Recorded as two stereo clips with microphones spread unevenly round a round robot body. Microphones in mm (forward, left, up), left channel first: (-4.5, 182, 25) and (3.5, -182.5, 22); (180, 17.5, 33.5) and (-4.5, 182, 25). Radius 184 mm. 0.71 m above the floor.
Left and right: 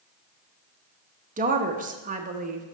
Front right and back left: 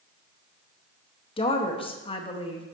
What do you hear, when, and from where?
1.4 s a woman speaking: 70° right, 0.8 m